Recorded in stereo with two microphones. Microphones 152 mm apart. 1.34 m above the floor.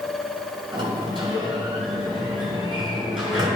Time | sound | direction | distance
0.7 | a sliding door | 30° right (ahead or behind) | 2.5 m